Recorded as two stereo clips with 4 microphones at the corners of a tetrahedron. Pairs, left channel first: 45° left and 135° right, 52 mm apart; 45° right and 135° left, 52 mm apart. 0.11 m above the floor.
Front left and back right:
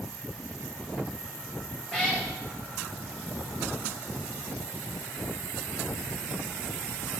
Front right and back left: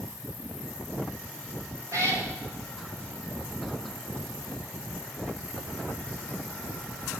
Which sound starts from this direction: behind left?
A cat meowing, at 1.9 s.